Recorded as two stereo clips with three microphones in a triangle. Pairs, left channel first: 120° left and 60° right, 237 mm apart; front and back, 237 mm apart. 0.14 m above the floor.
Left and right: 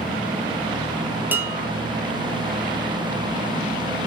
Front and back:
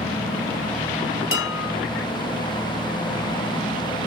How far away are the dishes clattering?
About 2 m.